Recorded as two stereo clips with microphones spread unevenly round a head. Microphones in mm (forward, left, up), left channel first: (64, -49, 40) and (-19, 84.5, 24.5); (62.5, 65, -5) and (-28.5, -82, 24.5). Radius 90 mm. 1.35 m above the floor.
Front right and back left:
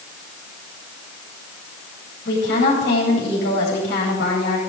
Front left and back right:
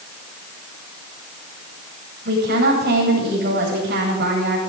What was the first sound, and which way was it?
A woman speaking, 90° right.